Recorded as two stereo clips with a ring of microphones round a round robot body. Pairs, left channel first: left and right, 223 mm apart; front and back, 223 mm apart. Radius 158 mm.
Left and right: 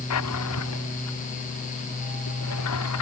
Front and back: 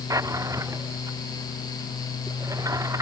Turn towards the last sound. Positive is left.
turn(degrees=105)